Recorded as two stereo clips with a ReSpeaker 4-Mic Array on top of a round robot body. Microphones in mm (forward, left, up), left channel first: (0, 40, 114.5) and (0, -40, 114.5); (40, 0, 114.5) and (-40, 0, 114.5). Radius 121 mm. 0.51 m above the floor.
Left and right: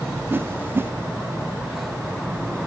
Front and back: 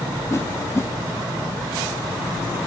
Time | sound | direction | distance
0.3 | a whoosh | 40° right | 0.9 m